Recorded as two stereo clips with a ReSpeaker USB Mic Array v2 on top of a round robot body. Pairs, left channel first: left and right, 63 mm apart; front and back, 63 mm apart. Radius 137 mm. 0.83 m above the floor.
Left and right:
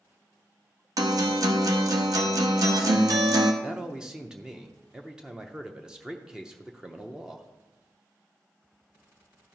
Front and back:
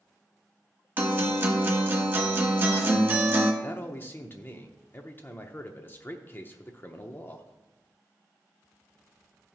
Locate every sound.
1.0 s a guitar: 120° right, 0.9 m
3.6 s a man speaking: 20° right, 0.8 m